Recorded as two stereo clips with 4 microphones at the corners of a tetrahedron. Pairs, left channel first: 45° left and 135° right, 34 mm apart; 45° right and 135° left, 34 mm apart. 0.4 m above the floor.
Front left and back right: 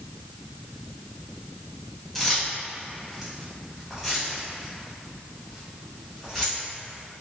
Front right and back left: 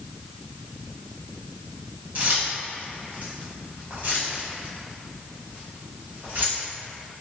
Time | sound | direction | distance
2.1 | keys jangling | 125° left | 1.1 m